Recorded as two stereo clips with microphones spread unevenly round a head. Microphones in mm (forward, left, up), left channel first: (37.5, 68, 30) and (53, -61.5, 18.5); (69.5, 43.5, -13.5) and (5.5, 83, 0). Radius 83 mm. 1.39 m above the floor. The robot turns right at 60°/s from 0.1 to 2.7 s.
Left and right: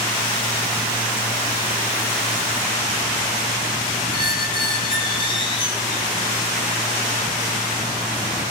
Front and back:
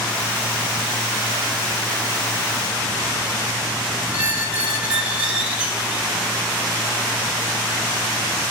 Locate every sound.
4.1 s a squeak: 105° left, 1.0 m